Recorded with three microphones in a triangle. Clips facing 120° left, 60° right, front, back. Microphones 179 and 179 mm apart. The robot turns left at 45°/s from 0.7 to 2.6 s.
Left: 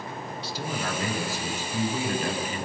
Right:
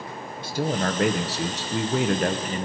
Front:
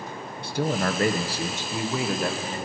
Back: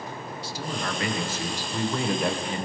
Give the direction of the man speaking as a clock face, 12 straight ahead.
1 o'clock.